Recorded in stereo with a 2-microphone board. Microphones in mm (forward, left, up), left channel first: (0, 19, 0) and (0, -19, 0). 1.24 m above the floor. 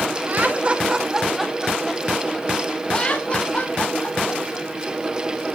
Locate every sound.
0.3 s laughter: 50° right (ahead or behind), 2 m; by 4.7 s 40° left (ahead or behind), 6 m